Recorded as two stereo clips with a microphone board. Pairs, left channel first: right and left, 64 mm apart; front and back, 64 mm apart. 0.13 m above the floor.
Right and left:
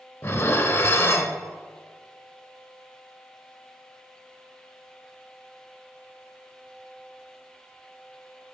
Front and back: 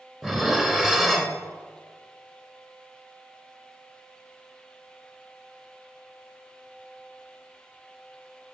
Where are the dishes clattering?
100° right, 0.8 m.